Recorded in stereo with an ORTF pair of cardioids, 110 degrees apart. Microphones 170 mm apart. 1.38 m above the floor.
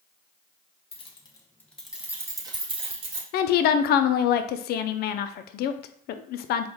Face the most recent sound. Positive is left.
turn(degrees=65)